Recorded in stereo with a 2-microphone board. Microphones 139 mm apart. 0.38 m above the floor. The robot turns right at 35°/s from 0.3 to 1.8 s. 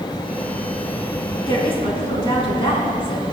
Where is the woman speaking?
30° left (ahead or behind), 3.5 m; by 3.2 s 40° left (ahead or behind), 3.5 m.